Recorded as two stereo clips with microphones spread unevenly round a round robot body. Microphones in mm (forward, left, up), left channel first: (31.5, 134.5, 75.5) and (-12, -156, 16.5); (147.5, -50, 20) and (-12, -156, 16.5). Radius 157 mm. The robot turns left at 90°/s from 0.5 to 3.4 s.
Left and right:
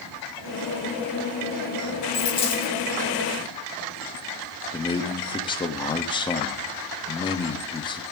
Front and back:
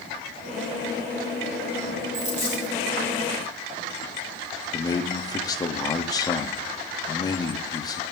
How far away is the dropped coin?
About 3 m.